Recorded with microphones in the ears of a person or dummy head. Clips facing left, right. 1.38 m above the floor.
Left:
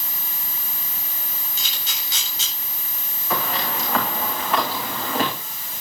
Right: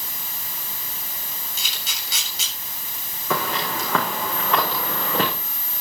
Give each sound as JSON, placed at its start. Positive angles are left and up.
{"t": 1.6, "sound": "a camera shutter", "side_deg": -90, "distance_m": 7.5}
{"t": 3.3, "sound": "footsteps", "side_deg": -70, "distance_m": 5.0}